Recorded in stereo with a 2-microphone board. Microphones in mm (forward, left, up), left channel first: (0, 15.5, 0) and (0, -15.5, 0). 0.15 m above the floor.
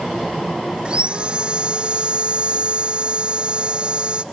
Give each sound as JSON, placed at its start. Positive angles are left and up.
{"t": 0.8, "sound": "sawing", "side_deg": -35}